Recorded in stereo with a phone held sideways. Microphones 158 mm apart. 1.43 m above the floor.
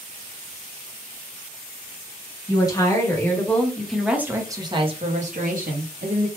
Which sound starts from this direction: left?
A woman speaking, at 2.5 s.